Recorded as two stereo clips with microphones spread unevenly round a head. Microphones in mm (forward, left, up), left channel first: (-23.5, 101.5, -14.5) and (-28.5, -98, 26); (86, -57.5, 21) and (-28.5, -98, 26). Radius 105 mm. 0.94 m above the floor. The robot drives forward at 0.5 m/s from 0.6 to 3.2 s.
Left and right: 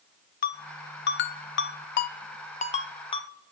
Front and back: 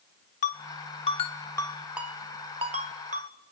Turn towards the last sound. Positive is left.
turn(degrees=155)